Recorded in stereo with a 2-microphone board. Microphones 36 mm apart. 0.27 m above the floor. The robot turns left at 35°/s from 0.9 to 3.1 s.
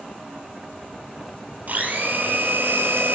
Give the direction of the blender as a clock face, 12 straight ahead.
2 o'clock.